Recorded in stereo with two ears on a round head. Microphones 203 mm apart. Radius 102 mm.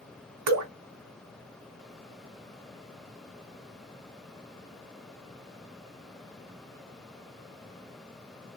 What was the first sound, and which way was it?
Dripping, 80° right.